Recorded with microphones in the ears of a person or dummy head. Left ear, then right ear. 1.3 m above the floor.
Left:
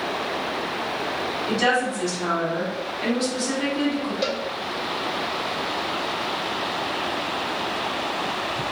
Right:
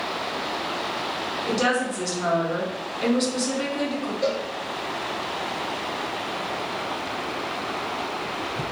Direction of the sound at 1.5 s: 50° right (ahead or behind).